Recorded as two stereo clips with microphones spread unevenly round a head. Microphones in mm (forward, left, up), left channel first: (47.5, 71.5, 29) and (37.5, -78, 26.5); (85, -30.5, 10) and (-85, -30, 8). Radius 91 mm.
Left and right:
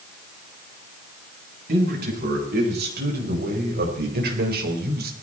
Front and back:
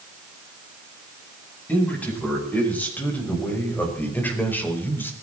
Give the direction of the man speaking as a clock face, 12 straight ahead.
3 o'clock.